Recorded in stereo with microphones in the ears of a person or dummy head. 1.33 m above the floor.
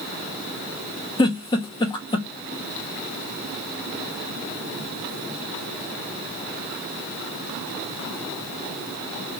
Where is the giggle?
25° left (ahead or behind), 1.1 m.